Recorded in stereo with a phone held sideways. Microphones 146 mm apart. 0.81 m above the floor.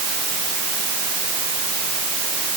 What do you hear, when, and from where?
Only background noise.